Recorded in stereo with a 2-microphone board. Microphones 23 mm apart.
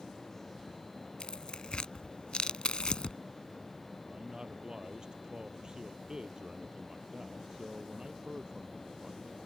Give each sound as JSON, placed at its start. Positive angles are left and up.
{"t": 1.2, "sound": "tearing paper", "side_deg": 45}
{"t": 4.1, "sound": "a man speaking", "side_deg": -35}